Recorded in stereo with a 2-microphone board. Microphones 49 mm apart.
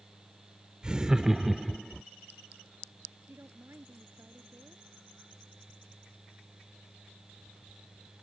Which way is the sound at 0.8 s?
20° right (ahead or behind).